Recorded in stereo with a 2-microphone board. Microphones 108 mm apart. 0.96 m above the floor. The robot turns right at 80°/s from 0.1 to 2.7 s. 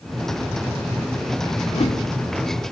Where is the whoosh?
95° left, 1.5 m; by 2.0 s 130° left, 1.5 m.